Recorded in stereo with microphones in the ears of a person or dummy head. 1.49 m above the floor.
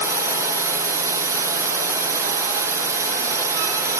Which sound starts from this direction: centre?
A drone, at 0.0 s.